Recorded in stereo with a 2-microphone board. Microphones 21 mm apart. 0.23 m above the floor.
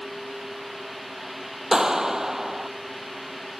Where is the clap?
25° right (ahead or behind).